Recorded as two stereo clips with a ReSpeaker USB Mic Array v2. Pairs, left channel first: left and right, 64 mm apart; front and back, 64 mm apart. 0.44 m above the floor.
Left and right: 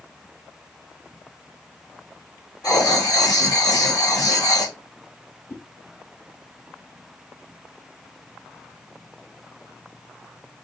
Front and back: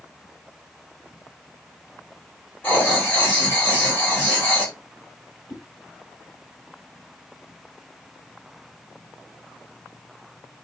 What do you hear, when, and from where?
2.6 s writing: 60° left, 5 m
5.5 s a whoosh: 55° left, 2.5 m